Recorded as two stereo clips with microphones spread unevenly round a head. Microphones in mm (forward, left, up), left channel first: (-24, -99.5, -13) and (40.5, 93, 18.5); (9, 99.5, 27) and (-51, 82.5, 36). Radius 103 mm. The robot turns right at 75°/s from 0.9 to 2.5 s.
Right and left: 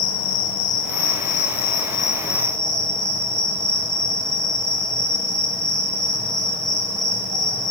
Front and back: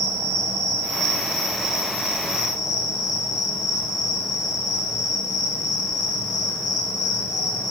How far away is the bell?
No bell in this recording.